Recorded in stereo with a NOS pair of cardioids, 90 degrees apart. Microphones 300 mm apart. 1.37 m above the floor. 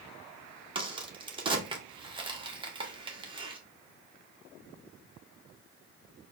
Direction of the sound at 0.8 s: 15° right.